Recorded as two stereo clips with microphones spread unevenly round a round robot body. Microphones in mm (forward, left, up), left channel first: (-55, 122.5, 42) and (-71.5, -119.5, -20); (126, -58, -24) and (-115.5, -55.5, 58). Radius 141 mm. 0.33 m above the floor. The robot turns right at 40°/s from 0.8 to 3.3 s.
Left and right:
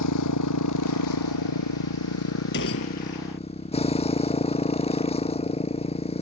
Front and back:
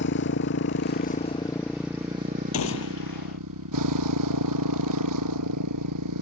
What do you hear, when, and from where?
0.0 s a motorcycle: 50° left; by 6.2 s 150° left
2.5 s a gunshot: 30° left; by 3.4 s 60° left